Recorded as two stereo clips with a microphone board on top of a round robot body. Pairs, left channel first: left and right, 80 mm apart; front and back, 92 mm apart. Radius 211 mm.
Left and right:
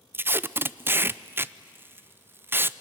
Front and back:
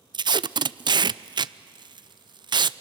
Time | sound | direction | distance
0.1 | tape being pulled | 150° right | 0.6 m